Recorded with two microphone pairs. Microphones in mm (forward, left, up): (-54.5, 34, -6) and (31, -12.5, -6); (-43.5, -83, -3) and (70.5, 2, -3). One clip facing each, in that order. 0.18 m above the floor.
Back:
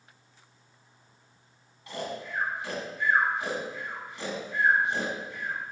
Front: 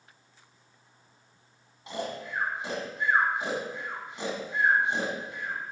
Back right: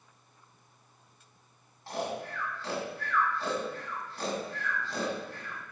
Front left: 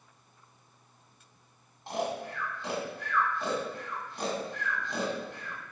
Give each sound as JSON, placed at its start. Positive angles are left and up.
{"t": 1.9, "sound": "snoring", "azimuth_deg": 0, "distance_m": 1.6}